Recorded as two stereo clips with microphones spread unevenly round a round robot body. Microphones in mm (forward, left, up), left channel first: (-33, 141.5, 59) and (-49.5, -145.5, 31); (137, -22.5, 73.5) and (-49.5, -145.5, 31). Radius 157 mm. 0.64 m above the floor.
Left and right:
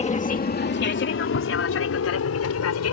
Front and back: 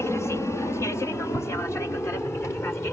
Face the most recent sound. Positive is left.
turn(degrees=120)